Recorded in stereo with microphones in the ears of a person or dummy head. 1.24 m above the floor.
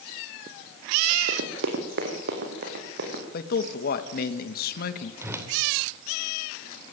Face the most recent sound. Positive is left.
turn(degrees=-15)  # may be behind; listen again after turning